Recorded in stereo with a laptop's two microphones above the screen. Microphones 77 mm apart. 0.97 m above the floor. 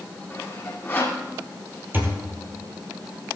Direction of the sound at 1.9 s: 25° right (ahead or behind).